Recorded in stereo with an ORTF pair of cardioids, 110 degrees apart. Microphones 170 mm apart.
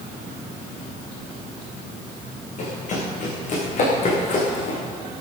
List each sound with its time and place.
2.6 s running footsteps: 50° left, 7.5 m